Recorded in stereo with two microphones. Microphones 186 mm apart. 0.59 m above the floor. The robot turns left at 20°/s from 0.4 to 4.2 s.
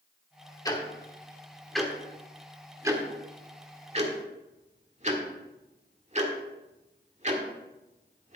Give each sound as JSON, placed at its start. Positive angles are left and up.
{"t": 0.7, "sound": "ticking", "side_deg": 20, "distance_m": 1.6}